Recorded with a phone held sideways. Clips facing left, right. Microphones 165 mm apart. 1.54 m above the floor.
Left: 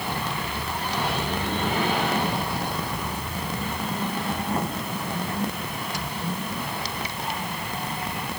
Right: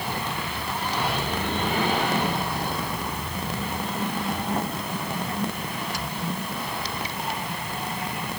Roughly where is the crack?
No crack in this recording.